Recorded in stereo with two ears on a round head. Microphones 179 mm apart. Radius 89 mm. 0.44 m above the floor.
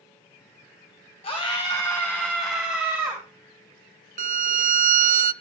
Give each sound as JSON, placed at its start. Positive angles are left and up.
{"t": 1.2, "sound": "a scream", "side_deg": 30, "distance_m": 3.0}
{"t": 4.2, "sound": "a violin", "side_deg": -40, "distance_m": 0.6}